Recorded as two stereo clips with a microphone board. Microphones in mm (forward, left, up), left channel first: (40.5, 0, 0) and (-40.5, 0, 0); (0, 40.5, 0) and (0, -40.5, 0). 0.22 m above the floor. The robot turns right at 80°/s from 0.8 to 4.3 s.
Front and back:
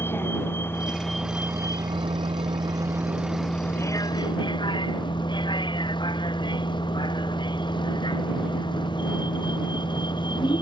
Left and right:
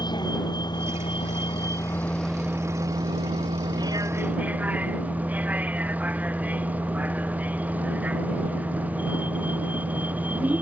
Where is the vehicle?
60° left; by 10.6 s 20° right.